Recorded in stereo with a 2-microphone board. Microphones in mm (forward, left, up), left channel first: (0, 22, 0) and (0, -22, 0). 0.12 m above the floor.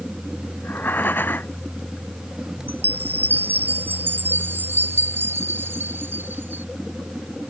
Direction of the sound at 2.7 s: 55° right (ahead or behind).